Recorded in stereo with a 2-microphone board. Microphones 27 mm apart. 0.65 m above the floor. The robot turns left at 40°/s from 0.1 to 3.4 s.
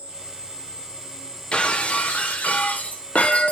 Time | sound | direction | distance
0.0 | an insect | 115° right | 1.5 m
1.5 | breaking glass | 135° left | 0.7 m